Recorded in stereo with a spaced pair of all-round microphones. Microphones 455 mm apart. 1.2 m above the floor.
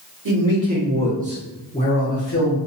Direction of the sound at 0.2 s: 50° right (ahead or behind).